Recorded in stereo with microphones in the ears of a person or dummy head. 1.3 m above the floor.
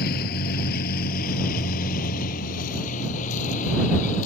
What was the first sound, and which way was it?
A vehicle, 55° left (ahead or behind).